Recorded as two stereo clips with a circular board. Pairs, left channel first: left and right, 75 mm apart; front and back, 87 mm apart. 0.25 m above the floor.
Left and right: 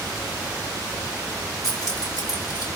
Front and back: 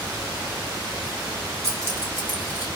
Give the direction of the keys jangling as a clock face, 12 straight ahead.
8 o'clock.